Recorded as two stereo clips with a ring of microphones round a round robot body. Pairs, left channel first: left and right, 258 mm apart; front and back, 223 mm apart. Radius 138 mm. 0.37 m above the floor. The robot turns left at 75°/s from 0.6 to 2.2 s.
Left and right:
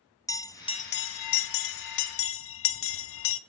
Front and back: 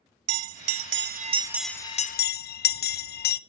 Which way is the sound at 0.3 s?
170° left.